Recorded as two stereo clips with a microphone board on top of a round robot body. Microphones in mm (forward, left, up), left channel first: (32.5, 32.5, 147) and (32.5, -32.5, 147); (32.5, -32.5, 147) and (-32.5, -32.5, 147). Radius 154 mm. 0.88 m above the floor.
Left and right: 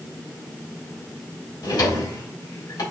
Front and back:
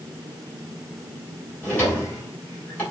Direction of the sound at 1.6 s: 70° left.